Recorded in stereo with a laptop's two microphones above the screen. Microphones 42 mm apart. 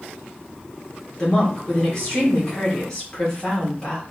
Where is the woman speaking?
20° left (ahead or behind), 1.7 m.